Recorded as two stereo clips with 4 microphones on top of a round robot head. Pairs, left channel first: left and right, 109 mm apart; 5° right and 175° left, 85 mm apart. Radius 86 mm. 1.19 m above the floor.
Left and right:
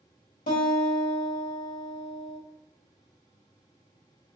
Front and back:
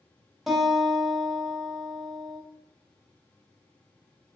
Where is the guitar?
90° left, 1.4 m.